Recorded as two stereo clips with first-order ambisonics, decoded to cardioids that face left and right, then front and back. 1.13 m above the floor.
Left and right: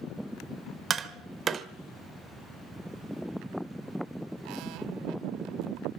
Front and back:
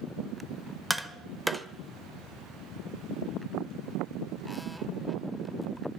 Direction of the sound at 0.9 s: 100° right.